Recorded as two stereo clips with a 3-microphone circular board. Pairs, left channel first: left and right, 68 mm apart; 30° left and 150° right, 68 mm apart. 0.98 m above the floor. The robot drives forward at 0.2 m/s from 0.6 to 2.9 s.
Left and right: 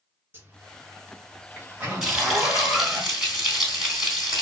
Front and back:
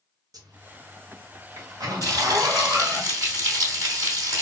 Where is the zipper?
150° right, 0.9 m; by 3.0 s 160° right, 1.4 m.